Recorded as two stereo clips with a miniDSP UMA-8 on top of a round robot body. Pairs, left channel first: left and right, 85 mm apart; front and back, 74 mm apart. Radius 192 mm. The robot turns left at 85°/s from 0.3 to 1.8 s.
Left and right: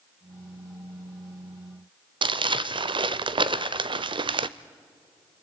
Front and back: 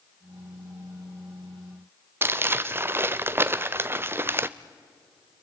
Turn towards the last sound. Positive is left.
turn(degrees=-120)